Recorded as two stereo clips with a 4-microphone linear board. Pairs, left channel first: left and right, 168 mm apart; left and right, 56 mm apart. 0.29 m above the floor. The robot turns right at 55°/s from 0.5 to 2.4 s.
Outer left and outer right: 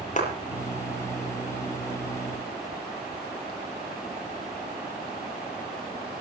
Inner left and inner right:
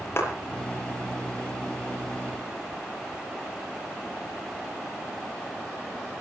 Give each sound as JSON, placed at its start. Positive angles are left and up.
{"t": 0.2, "sound": "a clap", "side_deg": 50, "distance_m": 7.5}